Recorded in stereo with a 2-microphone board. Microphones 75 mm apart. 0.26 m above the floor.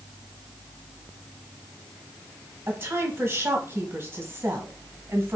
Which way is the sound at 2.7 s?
30° right (ahead or behind).